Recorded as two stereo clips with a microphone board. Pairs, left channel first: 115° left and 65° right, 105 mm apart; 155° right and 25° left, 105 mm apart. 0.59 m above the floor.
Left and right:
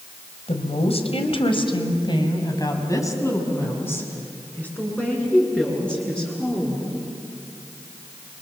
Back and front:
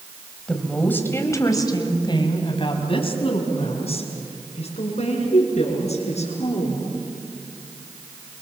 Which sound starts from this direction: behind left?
A woman speaking, at 0.5 s.